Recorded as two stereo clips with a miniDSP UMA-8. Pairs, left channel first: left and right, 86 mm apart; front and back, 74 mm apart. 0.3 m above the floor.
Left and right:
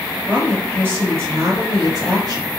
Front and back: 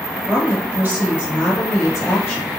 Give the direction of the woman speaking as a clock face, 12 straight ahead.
5 o'clock.